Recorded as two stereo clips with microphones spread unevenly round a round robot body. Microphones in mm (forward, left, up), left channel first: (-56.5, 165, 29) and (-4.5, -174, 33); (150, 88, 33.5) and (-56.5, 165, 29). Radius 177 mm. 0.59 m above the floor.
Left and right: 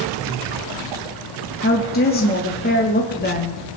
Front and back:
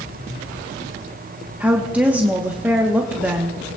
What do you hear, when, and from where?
1.6 s a woman speaking: 85° left, 1.1 m